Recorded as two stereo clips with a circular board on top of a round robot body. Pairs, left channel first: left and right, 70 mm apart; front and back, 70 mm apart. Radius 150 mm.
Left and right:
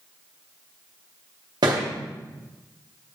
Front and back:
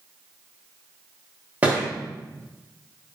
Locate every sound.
1.6 s a thud: 110° right, 1.0 m